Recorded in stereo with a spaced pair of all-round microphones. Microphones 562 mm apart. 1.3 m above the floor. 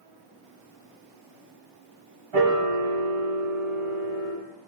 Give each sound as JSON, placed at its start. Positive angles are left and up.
{"t": 2.3, "sound": "a piano", "side_deg": -60, "distance_m": 0.8}